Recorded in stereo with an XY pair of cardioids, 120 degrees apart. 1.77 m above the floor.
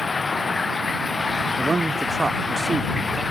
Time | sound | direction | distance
0.0 | running water | 25° left | ?
1.6 | a man speaking | 20° right | ?